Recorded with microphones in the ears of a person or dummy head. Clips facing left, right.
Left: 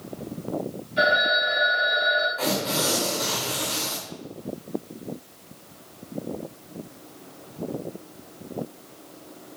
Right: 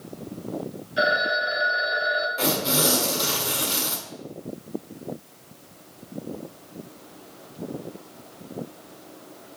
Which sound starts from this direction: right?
Tearing paper, at 2.4 s.